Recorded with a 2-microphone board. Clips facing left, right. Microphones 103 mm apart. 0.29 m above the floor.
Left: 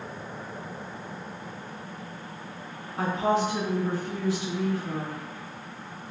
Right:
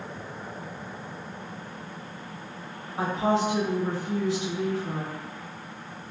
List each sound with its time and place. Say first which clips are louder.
3.0 s a woman speaking: even; 25° right (ahead or behind), 1.0 m